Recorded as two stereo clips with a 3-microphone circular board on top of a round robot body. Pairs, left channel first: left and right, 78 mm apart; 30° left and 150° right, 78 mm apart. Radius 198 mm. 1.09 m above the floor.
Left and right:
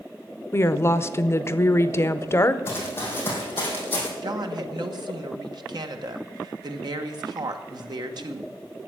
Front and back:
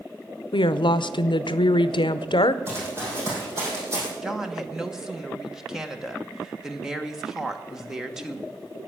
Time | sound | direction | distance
0.5 | a woman speaking | 35° left | 0.8 m
2.7 | running footsteps | 150° left | 4 m
4.2 | a woman speaking | 65° right | 1.5 m